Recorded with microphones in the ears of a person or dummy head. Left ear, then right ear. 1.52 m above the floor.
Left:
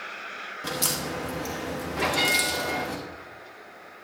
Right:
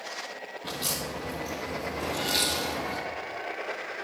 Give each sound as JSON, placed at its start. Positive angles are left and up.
{"t": 0.6, "sound": "a crack", "side_deg": 35, "distance_m": 1.5}
{"t": 2.0, "sound": "a bell", "side_deg": 45, "distance_m": 0.8}